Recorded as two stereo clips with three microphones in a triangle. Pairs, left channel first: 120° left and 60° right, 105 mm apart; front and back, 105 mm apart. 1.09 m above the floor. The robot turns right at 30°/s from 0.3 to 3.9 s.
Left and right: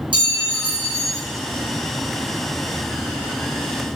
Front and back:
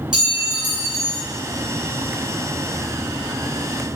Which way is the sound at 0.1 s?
95° right.